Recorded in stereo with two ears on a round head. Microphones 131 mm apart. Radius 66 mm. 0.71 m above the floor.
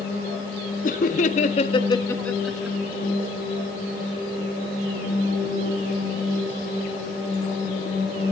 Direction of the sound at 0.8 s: 55° left (ahead or behind).